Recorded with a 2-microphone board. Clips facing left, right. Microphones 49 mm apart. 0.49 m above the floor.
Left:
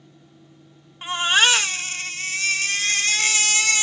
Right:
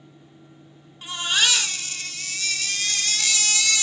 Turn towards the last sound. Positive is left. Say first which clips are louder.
# left 5 dB
turn(degrees=35)  # may be behind; listen again after turning